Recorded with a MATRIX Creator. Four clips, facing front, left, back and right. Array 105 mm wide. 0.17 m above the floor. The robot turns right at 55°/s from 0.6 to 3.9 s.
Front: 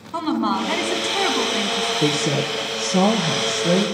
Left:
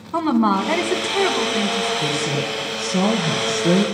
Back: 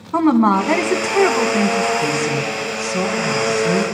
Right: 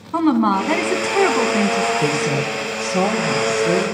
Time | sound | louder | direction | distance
0.1 | a woman speaking | right 2 dB, back 8 dB | 170° right | 1.1 m
2.0 | a woman speaking | right 3 dB, back 1 dB | 15° right | 2.5 m